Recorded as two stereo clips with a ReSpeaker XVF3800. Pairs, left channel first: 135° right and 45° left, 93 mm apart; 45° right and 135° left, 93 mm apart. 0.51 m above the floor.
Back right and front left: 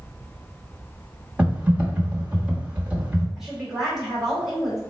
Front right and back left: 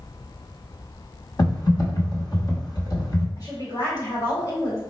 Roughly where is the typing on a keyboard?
Ahead right.